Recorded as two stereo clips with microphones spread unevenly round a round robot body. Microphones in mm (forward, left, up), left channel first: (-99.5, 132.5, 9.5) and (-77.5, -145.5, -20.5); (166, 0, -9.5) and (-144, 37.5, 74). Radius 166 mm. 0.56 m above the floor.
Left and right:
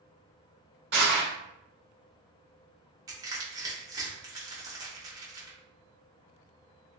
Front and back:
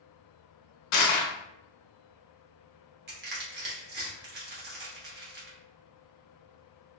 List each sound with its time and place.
0.9 s crushing: 30° right, 0.6 m
3.1 s crushing: 135° right, 0.9 m